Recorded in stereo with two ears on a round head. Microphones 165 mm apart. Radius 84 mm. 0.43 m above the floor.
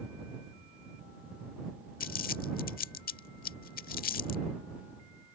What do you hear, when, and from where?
2.0 s crumpling: 55° left (ahead or behind)